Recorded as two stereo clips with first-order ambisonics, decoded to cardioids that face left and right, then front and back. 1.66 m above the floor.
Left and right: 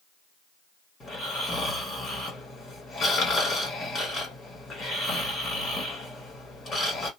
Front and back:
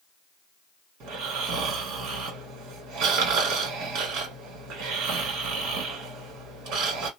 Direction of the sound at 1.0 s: 160° left.